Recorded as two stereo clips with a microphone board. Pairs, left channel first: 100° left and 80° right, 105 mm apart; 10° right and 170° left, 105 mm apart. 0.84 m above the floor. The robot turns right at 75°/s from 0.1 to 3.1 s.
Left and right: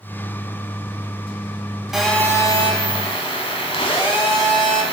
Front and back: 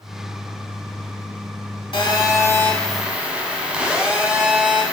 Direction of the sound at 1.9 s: 5° left.